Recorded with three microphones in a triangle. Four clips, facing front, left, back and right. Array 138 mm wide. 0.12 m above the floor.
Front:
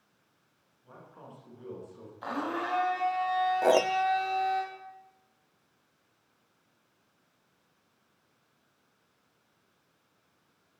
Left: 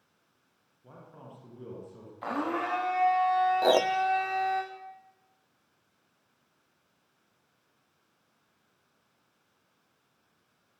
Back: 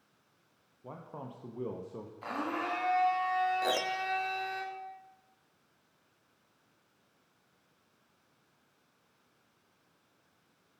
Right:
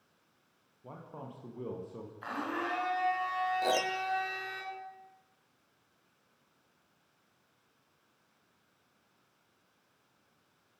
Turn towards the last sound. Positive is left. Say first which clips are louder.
# left 7 dB, front 9 dB
turn(degrees=45)